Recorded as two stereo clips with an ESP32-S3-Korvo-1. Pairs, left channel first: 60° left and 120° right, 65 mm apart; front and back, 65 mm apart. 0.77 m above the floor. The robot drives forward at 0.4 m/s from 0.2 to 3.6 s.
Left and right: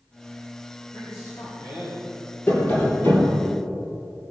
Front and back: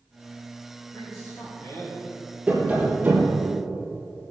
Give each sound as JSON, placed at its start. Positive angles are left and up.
{"t": 0.9, "sound": "a man speaking", "azimuth_deg": 50, "distance_m": 4.0}
{"t": 2.5, "sound": "tapping", "azimuth_deg": 110, "distance_m": 3.5}